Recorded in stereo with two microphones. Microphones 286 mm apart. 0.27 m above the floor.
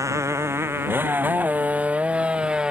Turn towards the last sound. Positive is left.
turn(degrees=0)  # may be behind; listen again after turning